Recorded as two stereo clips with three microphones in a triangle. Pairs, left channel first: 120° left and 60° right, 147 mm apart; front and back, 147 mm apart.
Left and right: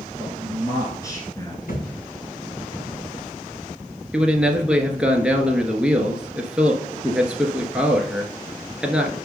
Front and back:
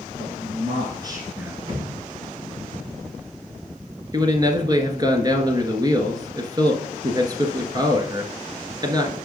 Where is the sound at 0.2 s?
170° right, 2.5 m; by 1.6 s 100° left, 1.6 m.